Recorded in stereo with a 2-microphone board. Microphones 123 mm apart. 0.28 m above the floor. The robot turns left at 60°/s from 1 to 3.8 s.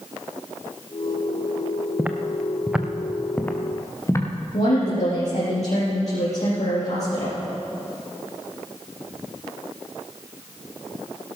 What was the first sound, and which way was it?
Footsteps, 15° right (ahead or behind).